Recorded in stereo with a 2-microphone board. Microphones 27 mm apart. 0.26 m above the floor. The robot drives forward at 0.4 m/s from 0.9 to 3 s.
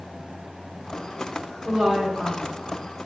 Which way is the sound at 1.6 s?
30° right (ahead or behind).